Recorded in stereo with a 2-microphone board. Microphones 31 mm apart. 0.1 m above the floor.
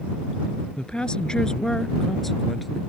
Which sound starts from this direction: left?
A woman speaking, at 0.8 s.